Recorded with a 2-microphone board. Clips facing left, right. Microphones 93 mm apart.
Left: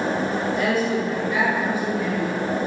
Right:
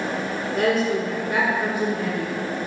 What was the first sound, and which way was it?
A woman speaking, 45° right (ahead or behind).